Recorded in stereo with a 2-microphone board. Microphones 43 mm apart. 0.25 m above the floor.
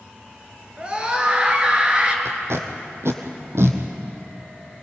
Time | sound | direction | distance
0.8 | a scream | 25° right (ahead or behind) | 3.5 m
2.2 | tape being pulled | 85° right | 1.9 m